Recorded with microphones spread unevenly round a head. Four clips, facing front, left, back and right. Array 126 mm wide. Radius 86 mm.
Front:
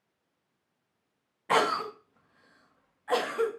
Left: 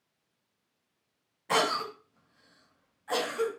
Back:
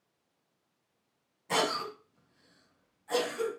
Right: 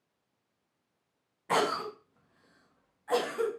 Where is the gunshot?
I don't hear a gunshot.